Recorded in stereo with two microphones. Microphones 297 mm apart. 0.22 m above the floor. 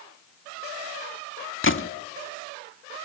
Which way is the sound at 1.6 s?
45° left (ahead or behind).